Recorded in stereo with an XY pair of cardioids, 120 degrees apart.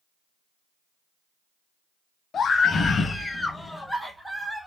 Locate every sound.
2.3 s a scream: 40° left, 1.3 m; by 4.7 s 15° right, 1.5 m